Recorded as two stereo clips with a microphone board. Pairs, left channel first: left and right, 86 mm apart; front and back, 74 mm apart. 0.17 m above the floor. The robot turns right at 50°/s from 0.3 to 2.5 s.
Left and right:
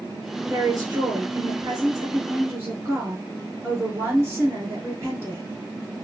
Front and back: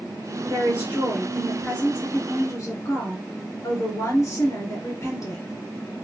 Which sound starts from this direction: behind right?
A woman speaking, at 0.5 s.